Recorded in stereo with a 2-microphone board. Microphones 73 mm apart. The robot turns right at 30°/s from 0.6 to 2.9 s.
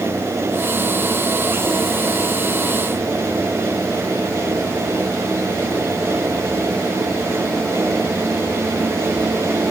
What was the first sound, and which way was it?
Only background noise.